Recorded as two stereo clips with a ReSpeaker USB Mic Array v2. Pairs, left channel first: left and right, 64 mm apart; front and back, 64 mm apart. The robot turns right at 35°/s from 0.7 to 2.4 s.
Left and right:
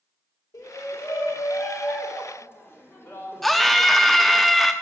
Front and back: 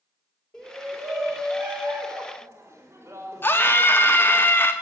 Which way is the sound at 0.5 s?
75° left.